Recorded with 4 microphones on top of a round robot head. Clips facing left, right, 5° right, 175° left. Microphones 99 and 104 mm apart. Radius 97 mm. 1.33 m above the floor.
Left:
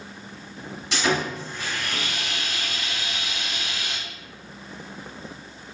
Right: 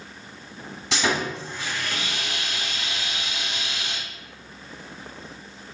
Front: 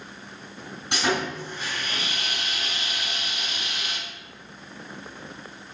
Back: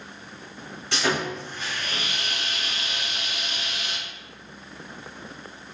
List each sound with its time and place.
0.9 s sawing: 80° right, 2 m